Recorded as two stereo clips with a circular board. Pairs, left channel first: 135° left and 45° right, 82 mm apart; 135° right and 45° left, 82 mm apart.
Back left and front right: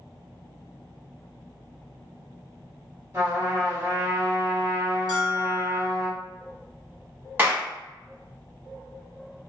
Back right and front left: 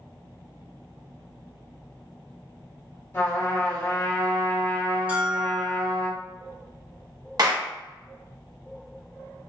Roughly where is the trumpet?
Right.